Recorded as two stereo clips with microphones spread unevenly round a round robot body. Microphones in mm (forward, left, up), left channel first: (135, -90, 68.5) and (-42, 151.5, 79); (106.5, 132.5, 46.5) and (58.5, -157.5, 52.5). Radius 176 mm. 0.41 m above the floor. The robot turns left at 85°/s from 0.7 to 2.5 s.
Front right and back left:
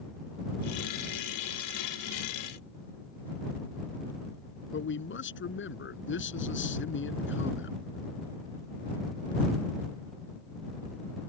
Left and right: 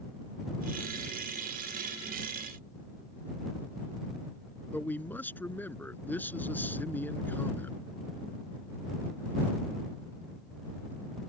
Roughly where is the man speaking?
Ahead.